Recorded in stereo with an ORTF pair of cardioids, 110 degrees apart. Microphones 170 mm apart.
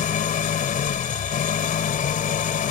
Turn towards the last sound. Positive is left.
turn(degrees=50)